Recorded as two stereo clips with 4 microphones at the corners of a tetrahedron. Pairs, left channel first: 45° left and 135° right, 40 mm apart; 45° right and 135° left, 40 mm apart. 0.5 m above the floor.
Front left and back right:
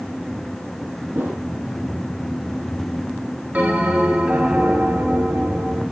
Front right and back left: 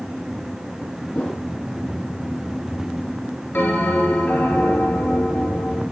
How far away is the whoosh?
About 3.5 m.